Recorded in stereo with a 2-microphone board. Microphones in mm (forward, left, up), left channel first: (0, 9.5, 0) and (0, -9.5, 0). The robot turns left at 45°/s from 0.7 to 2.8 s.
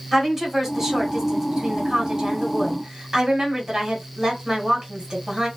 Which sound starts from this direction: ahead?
A woman speaking, at 0.1 s.